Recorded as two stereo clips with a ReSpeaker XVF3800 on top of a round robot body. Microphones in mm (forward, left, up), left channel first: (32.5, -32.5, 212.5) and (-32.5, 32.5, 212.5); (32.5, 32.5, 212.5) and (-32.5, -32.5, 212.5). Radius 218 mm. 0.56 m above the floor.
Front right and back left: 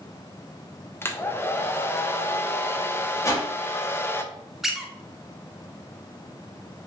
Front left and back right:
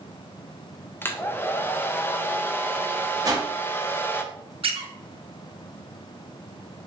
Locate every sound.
1.0 s a hair dryer: straight ahead, 0.7 m
3.2 s a whoosh: 95° right, 1.1 m
4.6 s a squeak: 140° right, 0.7 m